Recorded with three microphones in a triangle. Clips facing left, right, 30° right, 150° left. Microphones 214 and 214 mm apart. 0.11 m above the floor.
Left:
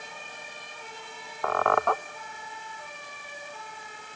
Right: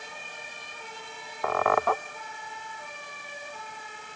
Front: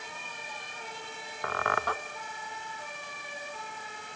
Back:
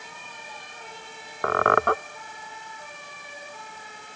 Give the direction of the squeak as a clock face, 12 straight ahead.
6 o'clock.